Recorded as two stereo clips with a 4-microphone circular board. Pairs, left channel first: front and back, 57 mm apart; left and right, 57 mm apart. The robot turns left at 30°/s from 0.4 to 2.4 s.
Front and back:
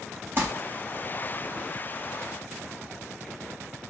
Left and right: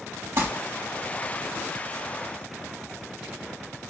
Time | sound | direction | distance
0.4 | crumpling | 130° right | 3 m